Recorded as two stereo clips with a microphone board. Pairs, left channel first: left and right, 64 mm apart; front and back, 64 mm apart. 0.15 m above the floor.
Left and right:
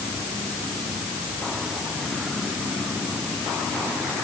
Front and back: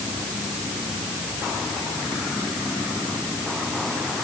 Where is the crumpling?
No crumpling in this recording.